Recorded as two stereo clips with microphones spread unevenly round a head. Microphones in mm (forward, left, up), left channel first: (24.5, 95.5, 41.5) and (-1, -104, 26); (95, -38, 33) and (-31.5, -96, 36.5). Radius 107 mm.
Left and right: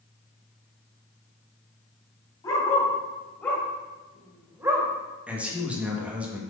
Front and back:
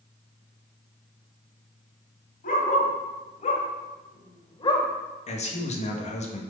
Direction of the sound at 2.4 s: 15° left.